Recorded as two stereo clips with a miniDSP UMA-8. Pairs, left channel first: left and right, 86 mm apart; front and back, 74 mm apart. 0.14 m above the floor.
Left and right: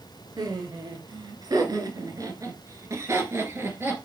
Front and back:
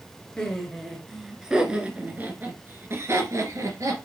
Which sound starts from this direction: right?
Laughter, at 0.4 s.